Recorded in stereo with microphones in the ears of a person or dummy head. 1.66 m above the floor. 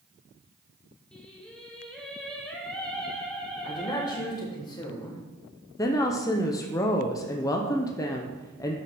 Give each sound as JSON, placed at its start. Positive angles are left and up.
{"t": 1.1, "sound": "singing", "side_deg": 5, "distance_m": 1.3}
{"t": 3.6, "sound": "a man speaking", "side_deg": 20, "distance_m": 1.9}
{"t": 5.8, "sound": "a woman speaking", "side_deg": 20, "distance_m": 0.8}